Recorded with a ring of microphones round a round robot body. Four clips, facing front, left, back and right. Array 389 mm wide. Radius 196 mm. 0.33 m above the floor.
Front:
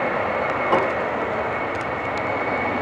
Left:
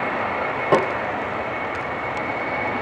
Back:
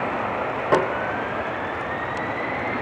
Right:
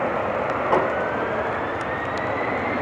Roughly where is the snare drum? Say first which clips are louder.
Left 3 dB, back 1 dB; left.